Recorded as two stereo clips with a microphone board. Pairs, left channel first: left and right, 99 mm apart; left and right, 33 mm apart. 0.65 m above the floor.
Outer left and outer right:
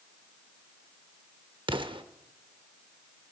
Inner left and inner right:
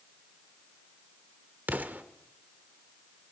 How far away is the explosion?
About 0.7 m.